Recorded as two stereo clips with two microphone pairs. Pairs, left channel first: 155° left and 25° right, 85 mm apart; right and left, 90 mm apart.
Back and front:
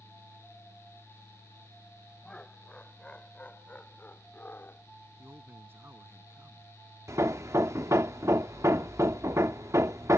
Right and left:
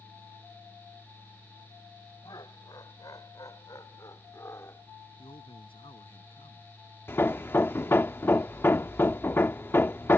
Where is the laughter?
130° right; by 4.8 s 145° right.